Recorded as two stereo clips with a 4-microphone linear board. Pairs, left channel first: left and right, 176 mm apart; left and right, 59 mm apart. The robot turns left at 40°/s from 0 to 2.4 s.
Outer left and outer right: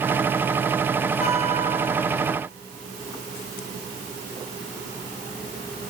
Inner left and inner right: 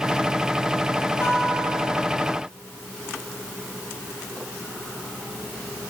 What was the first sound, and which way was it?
A guitar, 45° left.